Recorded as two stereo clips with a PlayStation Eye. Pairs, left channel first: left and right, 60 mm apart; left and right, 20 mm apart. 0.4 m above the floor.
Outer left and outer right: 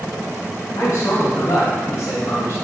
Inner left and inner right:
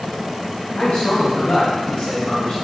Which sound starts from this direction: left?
A man speaking, at 0.8 s.